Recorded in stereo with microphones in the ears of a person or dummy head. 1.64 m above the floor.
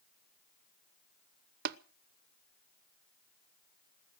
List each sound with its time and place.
1.6 s tapping: 55° right (ahead or behind), 0.8 m